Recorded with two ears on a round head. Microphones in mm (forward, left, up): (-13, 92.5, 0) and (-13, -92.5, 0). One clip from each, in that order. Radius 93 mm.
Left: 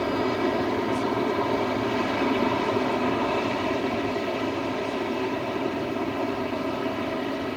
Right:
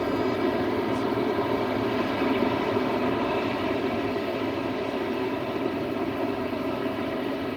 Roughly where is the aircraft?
Centre.